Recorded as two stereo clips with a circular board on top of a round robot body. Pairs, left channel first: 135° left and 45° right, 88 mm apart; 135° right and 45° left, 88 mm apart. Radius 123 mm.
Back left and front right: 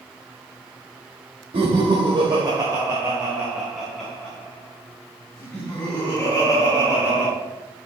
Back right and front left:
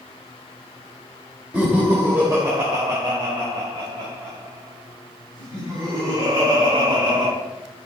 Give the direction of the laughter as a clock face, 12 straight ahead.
1 o'clock.